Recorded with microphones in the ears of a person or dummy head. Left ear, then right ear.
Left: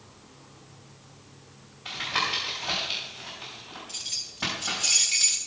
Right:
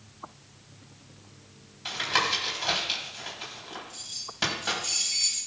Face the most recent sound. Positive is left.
turn(degrees=25)  # may be behind; listen again after turning